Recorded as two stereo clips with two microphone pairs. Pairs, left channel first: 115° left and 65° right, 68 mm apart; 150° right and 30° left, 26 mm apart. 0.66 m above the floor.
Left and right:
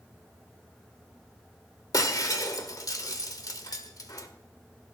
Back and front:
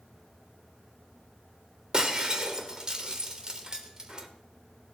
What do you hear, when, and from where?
1.9 s breaking glass: 85° left, 1.3 m